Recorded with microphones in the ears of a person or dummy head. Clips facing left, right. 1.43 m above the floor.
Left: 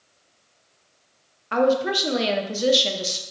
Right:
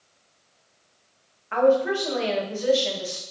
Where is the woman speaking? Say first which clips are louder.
Right 1 dB; 55° left (ahead or behind), 0.8 m.